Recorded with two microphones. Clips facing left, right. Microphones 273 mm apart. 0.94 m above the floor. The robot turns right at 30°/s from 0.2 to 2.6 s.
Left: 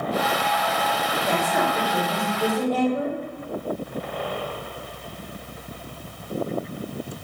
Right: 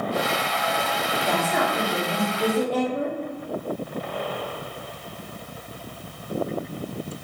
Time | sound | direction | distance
1.2 | a woman speaking | 170° left | 2.5 m